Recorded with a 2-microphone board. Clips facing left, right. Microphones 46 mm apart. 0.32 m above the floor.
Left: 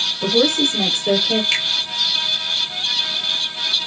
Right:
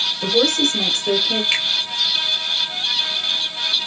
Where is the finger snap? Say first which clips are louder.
Even; 10° right (ahead or behind), 0.9 m.